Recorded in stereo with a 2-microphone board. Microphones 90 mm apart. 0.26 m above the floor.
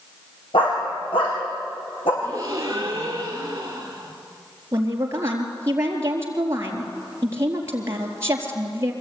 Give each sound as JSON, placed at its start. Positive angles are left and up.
{"t": 0.5, "sound": "a dog barking", "side_deg": 80, "distance_m": 6.5}
{"t": 2.2, "sound": "a gasp", "side_deg": -40, "distance_m": 4.5}
{"t": 4.7, "sound": "a woman speaking", "side_deg": -30, "distance_m": 4.0}